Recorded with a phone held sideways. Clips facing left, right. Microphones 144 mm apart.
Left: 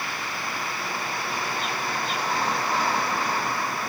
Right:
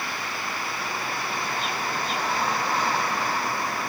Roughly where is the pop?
No pop in this recording.